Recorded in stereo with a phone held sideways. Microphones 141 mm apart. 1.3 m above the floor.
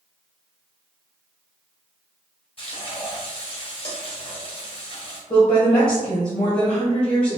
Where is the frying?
40° left (ahead or behind), 1.4 m.